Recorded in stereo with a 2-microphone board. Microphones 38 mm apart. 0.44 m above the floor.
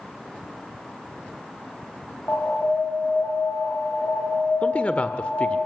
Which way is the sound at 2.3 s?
85° left.